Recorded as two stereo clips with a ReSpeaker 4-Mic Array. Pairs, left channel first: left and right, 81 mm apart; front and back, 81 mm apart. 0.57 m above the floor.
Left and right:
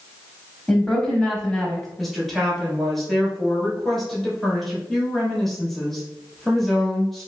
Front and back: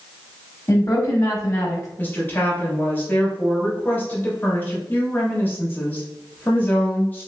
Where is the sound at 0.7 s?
5° left, 0.9 m.